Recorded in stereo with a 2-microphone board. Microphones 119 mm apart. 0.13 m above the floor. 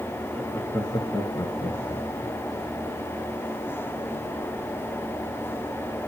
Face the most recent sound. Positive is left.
turn(degrees=45)  # may be behind; listen again after turning